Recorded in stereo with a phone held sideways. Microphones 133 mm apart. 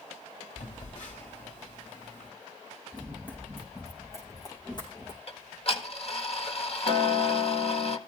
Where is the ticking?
50° left (ahead or behind), 1.5 m.